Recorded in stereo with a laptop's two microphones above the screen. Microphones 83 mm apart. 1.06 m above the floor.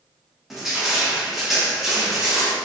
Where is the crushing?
5° right (ahead or behind), 0.5 m.